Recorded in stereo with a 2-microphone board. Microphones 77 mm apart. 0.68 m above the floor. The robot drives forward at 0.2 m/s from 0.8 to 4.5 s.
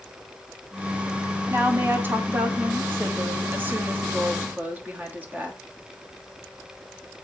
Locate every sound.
1.5 s a woman speaking: 25° right (ahead or behind), 0.9 m; by 5.6 s 20° right (ahead or behind), 1.2 m